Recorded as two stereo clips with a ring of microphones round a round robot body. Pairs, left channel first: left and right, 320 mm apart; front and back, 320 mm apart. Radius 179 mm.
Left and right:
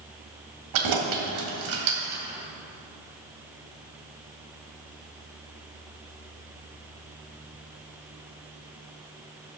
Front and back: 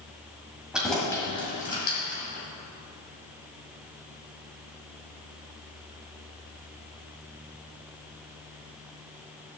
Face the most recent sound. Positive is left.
turn(degrees=-55)